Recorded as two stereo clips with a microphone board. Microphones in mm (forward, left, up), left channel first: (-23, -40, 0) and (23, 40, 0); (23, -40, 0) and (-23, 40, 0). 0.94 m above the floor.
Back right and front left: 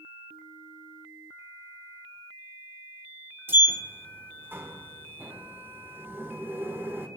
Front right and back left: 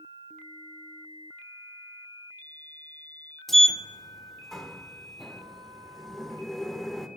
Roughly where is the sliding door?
Ahead left.